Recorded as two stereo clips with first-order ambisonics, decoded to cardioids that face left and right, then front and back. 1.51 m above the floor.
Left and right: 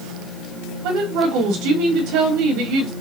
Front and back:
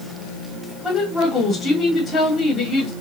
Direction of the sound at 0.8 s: 70° right.